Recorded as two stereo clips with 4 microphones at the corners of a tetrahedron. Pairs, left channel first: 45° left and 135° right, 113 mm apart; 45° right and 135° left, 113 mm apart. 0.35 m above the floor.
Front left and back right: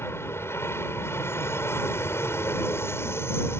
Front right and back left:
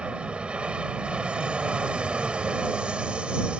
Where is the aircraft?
70° left.